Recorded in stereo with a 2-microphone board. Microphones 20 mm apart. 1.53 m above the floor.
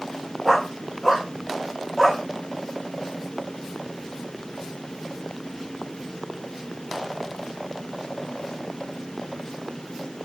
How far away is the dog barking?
About 2 m.